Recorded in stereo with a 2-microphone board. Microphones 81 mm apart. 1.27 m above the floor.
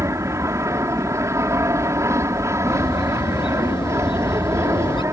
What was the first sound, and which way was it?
An aircraft, 35° right (ahead or behind).